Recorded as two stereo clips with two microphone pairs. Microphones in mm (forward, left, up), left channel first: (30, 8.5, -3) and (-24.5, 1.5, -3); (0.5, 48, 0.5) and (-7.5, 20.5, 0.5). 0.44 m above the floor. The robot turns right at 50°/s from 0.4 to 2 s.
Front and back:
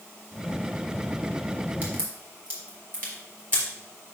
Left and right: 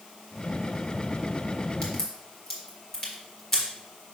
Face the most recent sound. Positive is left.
turn(degrees=140)